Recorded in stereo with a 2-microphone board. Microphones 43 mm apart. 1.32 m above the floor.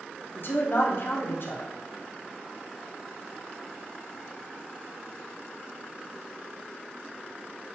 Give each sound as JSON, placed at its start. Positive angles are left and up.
{"t": 0.3, "sound": "a woman speaking", "side_deg": 55, "distance_m": 0.8}